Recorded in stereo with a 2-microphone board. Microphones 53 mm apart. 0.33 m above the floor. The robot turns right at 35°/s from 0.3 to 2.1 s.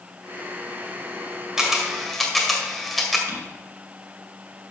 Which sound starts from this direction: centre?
A camera shutter, at 1.6 s.